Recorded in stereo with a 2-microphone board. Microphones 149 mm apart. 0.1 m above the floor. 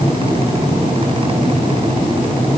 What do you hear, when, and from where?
Only background noise.